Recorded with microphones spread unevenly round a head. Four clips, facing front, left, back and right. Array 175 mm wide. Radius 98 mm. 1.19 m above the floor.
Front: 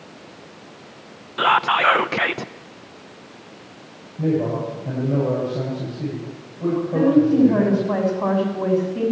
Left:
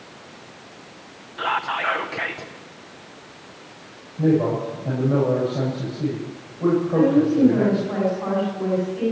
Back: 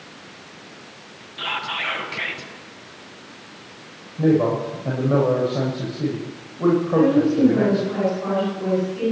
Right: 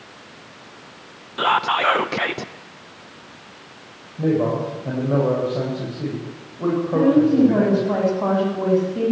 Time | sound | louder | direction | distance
1.4 | whispering | right 5 dB, front 12 dB | 50° right | 0.7 m
4.2 | a man speaking | left 1 dB, back 3 dB | 150° right | 7.5 m
6.9 | a woman speaking | right 4 dB, front 5 dB | 50° right | 7.5 m